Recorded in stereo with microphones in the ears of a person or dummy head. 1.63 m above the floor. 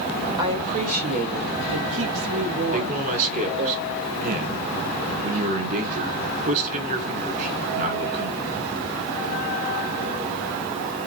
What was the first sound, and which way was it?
A woman speaking, 20° right (ahead or behind).